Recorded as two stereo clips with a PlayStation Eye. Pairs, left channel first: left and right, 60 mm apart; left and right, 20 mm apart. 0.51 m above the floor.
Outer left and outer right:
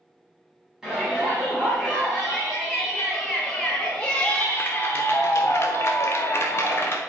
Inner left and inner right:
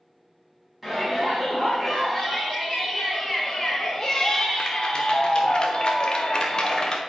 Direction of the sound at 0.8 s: 10° right (ahead or behind).